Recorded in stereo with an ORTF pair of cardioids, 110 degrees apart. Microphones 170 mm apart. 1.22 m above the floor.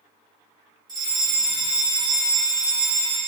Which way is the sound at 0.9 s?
25° right.